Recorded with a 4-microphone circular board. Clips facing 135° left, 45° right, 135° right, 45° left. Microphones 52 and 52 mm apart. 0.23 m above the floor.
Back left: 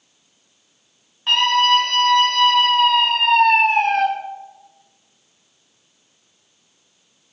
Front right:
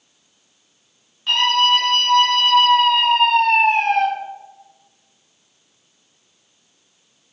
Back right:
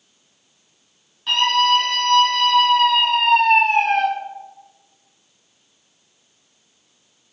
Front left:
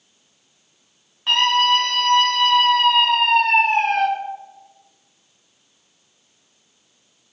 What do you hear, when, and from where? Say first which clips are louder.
1.3 s a scream: back left 1 dB, even; 95° left, 1.9 m